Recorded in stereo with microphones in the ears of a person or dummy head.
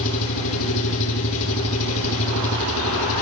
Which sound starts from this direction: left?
An engine running, at 0.0 s.